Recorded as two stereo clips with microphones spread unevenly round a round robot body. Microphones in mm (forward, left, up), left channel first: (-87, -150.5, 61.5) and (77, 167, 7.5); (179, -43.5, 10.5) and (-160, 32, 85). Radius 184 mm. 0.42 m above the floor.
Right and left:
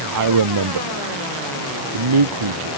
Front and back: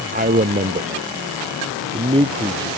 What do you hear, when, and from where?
0.1 s a man speaking: 100° left; by 2.7 s 90° left